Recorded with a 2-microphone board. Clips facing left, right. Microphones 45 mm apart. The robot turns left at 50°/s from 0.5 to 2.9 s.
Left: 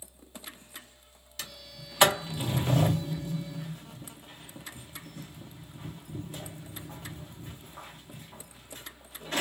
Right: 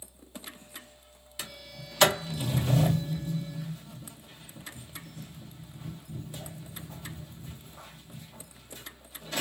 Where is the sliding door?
10° right (ahead or behind), 0.8 m; by 9.4 s 50° left (ahead or behind), 0.8 m.